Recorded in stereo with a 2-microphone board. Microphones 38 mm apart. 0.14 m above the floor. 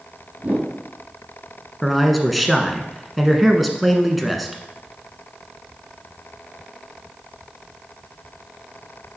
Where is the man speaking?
Centre (ahead or behind), 1.2 m.